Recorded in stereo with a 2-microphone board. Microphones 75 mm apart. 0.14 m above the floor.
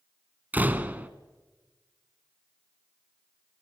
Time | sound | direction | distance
0.5 | a door slam | 25° right (ahead or behind) | 1.1 m